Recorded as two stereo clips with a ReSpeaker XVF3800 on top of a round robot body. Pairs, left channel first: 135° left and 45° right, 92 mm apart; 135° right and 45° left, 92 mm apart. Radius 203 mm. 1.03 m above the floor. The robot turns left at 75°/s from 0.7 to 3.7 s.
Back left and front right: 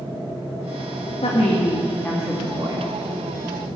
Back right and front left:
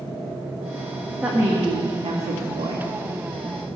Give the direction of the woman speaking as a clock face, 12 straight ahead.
8 o'clock.